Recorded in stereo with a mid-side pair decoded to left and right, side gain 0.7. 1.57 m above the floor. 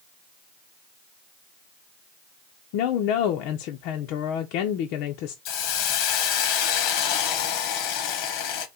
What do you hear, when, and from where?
2.7 s a woman speaking: 70° left, 0.6 m
5.5 s a hiss: 70° left, 0.8 m